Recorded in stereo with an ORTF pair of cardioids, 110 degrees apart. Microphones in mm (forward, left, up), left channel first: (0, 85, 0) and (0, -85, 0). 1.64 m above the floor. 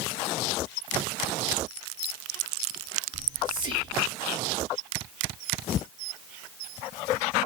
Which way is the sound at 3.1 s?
30° right.